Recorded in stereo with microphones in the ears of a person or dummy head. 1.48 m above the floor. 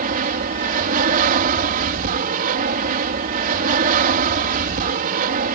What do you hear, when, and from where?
0.0 s an aircraft: 45° right (ahead or behind)